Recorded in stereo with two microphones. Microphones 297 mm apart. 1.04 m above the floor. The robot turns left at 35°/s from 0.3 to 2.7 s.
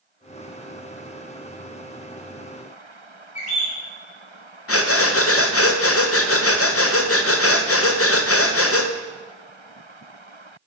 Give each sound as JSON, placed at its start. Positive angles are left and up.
{"t": 3.4, "sound": "a bird", "side_deg": 65, "distance_m": 2.5}
{"t": 4.7, "sound": "breathing", "side_deg": 50, "distance_m": 0.6}